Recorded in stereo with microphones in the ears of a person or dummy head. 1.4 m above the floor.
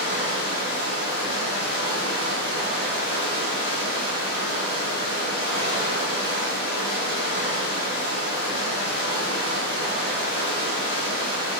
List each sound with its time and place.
0.0 s running water: 60° left (ahead or behind), 1.6 m